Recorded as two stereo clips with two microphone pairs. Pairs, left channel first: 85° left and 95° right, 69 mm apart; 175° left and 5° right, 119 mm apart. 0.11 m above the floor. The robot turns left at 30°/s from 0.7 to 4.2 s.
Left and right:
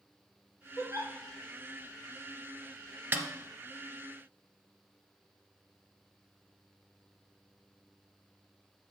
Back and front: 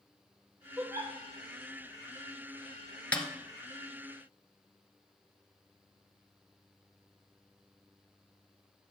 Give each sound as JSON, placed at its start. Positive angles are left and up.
{"t": 0.8, "sound": "a giggle", "azimuth_deg": 65, "distance_m": 2.5}
{"t": 3.1, "sound": "a snare drum", "azimuth_deg": -115, "distance_m": 1.4}